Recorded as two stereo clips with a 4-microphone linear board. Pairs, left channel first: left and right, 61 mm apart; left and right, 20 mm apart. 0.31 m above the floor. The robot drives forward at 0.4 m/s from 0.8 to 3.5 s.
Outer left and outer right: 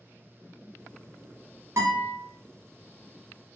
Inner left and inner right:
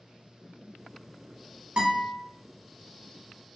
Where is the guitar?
55° right (ahead or behind), 1.2 m; by 2.2 s 60° right (ahead or behind), 1.1 m.